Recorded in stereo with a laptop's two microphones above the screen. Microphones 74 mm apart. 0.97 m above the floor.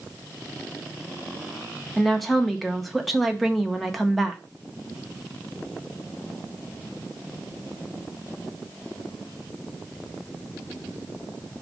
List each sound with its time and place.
2.0 s a woman speaking: centre (ahead or behind), 0.8 m